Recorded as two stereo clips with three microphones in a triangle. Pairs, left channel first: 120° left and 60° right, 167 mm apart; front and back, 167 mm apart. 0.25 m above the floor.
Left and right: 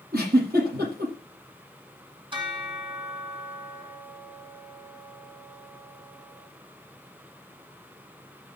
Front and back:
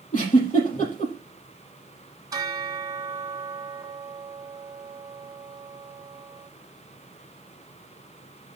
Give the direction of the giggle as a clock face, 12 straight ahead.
1 o'clock.